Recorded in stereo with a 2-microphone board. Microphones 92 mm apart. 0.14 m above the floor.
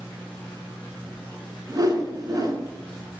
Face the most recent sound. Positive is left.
turn(degrees=-45)  # may be behind; listen again after turning